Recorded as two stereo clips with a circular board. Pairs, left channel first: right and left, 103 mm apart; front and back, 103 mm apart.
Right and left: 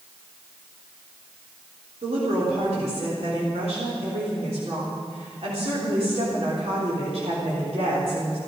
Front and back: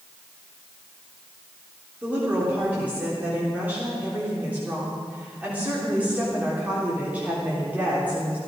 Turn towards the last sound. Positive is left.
turn(degrees=105)